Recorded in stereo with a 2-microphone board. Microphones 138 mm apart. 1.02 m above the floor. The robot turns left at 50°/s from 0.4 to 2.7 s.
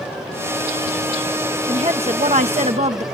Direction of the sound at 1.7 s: 55° right.